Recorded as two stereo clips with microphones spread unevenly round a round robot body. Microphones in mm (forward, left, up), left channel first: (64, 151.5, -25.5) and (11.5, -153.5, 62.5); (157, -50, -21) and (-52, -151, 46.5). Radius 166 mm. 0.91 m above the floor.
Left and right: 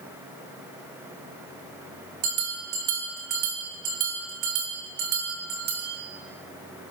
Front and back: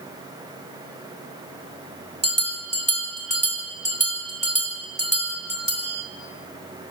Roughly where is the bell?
Right.